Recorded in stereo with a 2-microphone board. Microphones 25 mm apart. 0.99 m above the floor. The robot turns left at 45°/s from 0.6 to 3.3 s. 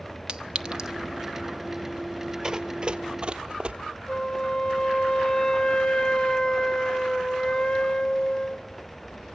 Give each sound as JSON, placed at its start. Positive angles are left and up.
{"t": 0.3, "sound": "a clink", "side_deg": -35, "distance_m": 0.8}
{"t": 2.4, "sound": "running footsteps", "side_deg": -25, "distance_m": 1.1}
{"t": 4.1, "sound": "a flute", "side_deg": 35, "distance_m": 1.6}